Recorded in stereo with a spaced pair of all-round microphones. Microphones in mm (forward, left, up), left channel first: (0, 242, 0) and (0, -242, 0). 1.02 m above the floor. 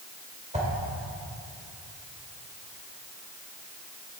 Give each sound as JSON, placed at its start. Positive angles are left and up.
{"t": 0.5, "sound": "a whoosh", "side_deg": -15, "distance_m": 1.5}